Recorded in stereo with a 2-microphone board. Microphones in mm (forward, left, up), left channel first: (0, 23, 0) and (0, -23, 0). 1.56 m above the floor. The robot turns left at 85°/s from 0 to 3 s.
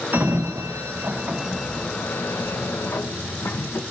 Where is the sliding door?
45° right (ahead or behind), 1.2 m; by 3.8 s 70° left (ahead or behind), 1.2 m.